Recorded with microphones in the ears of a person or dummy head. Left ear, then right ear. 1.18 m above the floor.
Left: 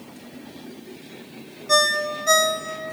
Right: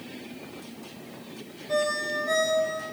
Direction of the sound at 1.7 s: 60° left (ahead or behind).